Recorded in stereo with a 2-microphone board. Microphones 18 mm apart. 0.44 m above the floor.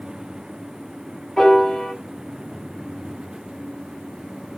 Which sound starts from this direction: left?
A piano, at 1.4 s.